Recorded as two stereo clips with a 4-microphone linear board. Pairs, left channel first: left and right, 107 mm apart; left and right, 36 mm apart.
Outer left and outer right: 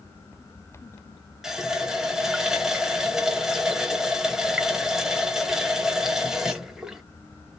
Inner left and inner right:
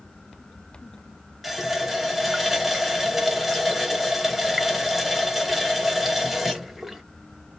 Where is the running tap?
5° right (ahead or behind), 0.7 m.